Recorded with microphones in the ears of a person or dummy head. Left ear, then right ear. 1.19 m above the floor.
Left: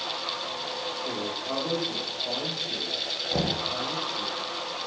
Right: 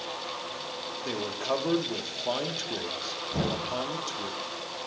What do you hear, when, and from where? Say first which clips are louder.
1.0 s a man speaking: even; 80° right, 0.9 m
3.3 s knocking: left 3 dB; 85° left, 1.3 m